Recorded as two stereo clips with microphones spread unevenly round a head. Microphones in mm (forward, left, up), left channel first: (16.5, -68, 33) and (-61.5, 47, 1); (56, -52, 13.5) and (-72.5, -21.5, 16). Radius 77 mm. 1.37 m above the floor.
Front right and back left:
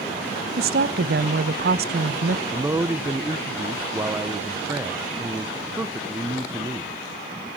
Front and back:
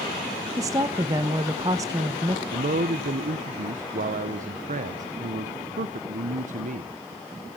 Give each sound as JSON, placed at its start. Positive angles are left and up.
{"t": 0.6, "sound": "a woman speaking", "azimuth_deg": 95, "distance_m": 1.2}
{"t": 2.5, "sound": "a man speaking", "azimuth_deg": -165, "distance_m": 1.2}